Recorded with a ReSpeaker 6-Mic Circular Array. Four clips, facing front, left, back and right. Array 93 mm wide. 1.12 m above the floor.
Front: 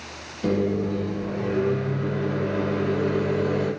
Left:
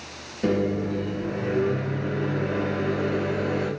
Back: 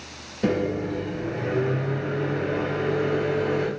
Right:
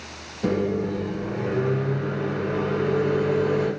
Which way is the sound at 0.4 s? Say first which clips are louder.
Even, front 1 dB; 165° left.